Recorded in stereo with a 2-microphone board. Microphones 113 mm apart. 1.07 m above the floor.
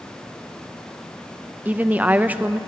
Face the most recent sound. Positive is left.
turn(degrees=-15)  # may be behind; listen again after turning